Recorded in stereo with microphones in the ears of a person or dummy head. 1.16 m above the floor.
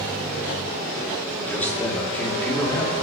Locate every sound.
1.5 s a man speaking: 10° left (ahead or behind), 2.5 m